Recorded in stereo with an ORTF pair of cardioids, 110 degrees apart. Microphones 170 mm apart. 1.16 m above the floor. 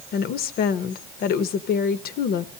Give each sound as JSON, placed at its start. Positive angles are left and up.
{"t": 0.1, "sound": "a woman speaking", "azimuth_deg": 65, "distance_m": 0.9}